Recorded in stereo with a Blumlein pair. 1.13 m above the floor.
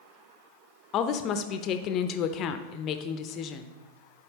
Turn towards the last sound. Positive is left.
turn(degrees=35)